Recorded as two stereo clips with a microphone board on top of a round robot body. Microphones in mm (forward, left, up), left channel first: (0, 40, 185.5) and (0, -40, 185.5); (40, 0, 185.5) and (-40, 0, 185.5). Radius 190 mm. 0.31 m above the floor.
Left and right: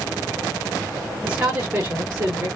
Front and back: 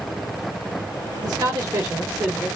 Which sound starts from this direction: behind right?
A man speaking, at 1.2 s.